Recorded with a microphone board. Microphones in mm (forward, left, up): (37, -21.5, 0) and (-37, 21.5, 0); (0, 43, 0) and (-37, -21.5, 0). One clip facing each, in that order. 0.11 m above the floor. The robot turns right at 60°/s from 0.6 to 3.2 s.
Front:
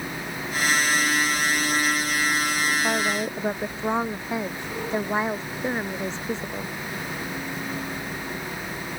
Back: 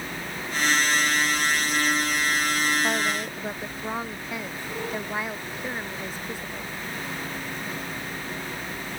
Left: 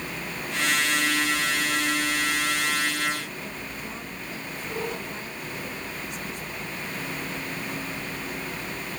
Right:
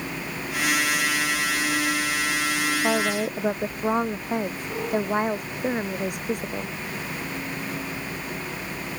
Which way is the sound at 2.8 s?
115° right.